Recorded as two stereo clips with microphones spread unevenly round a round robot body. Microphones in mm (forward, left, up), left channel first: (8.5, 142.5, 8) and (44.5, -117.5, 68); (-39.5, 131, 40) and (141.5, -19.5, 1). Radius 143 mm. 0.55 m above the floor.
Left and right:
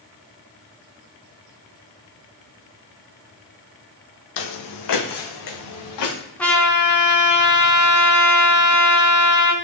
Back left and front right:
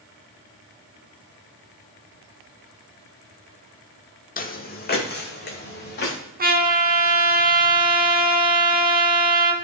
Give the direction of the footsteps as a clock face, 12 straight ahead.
9 o'clock.